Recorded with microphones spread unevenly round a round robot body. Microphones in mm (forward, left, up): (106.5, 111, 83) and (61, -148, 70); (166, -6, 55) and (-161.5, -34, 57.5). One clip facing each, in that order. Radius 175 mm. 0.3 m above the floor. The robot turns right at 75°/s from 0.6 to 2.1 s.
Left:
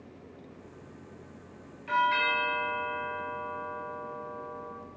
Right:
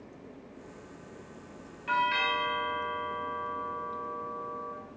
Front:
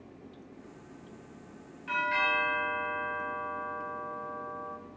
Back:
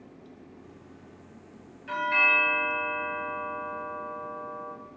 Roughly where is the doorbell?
Ahead right.